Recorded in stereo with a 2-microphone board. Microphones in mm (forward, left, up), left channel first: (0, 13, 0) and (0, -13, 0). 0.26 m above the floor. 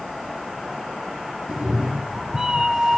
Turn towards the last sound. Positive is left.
turn(degrees=-35)  # may be behind; listen again after turning